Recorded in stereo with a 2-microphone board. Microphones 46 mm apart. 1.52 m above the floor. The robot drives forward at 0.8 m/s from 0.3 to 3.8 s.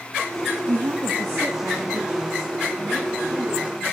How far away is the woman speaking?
About 0.6 m.